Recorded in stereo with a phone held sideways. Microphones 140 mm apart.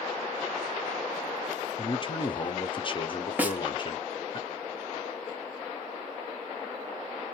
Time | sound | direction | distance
1.8 | a man speaking | 35° left (ahead or behind) | 0.6 m
3.4 | a snare drum | 10° right (ahead or behind) | 0.7 m